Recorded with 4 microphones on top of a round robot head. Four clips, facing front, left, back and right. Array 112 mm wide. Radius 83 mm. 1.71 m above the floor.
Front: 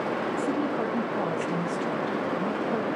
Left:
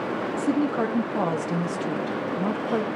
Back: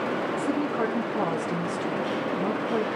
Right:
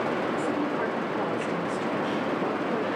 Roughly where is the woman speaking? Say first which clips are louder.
Left 4 dB, back 1 dB; left.